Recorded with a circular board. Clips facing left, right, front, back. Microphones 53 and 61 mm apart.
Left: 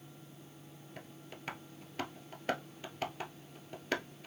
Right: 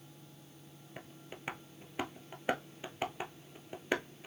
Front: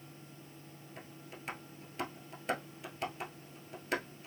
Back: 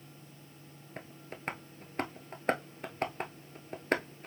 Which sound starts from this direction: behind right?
Tapping, at 1.0 s.